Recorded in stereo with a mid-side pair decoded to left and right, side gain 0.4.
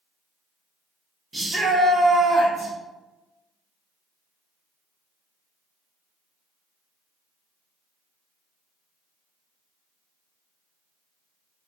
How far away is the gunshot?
No gunshot in this recording.